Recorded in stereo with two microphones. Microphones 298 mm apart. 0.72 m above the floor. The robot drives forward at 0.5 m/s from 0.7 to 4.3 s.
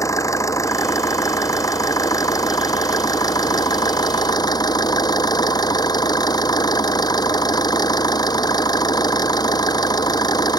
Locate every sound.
0.0 s an engine running: 10° left (ahead or behind); by 10.6 s 15° left (ahead or behind)